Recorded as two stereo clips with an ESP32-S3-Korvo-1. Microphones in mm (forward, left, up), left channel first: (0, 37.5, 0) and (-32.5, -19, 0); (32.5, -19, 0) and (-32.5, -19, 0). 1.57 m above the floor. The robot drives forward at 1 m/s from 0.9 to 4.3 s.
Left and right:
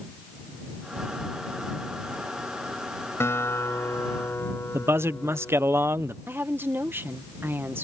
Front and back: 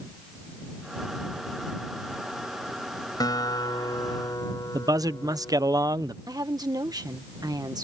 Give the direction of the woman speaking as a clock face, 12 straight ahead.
6 o'clock.